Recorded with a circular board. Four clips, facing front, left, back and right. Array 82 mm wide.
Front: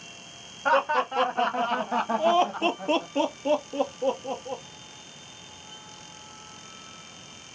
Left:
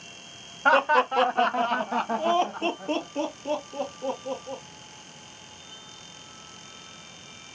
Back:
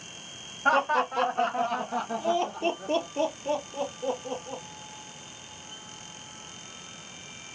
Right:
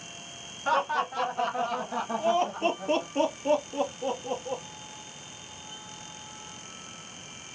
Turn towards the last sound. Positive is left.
turn(degrees=-35)